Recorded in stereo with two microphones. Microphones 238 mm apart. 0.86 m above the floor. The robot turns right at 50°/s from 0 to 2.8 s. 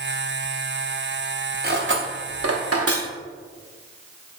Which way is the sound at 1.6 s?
40° right (ahead or behind).